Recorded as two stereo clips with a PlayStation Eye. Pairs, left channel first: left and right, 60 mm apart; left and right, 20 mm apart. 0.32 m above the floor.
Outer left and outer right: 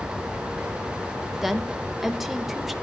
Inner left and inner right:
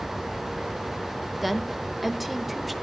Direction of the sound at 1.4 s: 5° right (ahead or behind).